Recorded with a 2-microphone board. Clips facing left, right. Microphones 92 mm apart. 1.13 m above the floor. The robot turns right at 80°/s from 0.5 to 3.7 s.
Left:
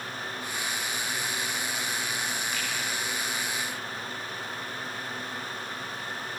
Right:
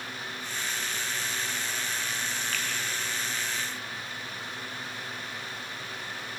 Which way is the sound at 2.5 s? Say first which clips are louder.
Left 1 dB; 20° left (ahead or behind).